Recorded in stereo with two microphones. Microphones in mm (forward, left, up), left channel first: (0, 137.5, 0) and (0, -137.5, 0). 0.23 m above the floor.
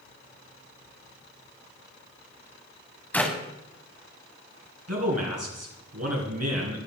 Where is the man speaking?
65° right (ahead or behind), 3 m.